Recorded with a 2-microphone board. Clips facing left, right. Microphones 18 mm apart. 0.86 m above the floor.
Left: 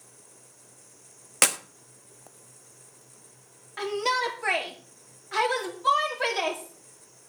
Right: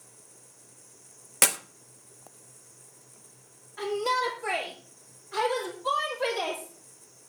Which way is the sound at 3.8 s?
55° left (ahead or behind).